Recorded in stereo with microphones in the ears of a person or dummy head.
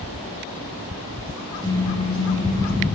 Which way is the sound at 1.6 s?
20° left (ahead or behind).